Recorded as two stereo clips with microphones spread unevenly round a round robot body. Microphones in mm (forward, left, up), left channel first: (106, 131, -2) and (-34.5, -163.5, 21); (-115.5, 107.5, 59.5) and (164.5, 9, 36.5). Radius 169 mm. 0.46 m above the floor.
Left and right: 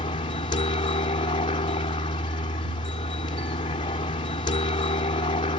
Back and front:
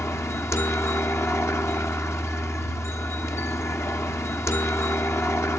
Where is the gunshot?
No gunshot in this recording.